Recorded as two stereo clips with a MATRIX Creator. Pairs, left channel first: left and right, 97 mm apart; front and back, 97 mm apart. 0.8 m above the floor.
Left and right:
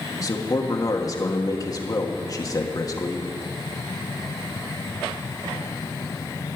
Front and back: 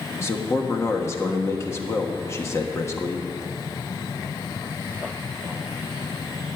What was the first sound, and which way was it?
A man speaking, 55° left.